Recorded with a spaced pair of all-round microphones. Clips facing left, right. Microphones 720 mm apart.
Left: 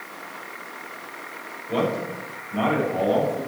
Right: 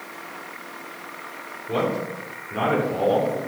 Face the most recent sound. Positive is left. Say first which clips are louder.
# even
turn(degrees=-75)  # may be behind; listen again after turning